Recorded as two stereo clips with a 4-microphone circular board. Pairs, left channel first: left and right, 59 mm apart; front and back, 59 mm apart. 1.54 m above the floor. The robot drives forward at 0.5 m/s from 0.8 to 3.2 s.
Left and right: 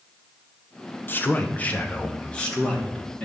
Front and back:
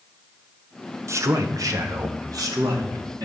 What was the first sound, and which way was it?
A man speaking, 145° left.